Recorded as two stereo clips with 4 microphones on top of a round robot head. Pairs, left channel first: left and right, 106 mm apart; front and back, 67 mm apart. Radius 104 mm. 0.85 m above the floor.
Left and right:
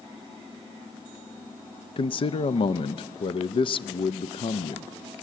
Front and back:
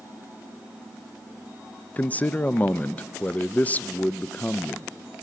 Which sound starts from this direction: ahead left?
A man speaking, at 2.0 s.